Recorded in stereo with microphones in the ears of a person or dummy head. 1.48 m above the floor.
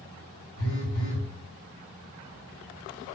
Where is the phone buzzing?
40° right (ahead or behind), 1.8 m.